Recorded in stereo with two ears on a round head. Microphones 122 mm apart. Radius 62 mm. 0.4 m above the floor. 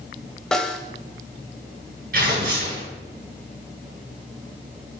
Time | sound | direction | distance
0.5 | a snare drum | 5° left (ahead or behind) | 1.1 m
2.1 | tearing paper | 80° right | 5 m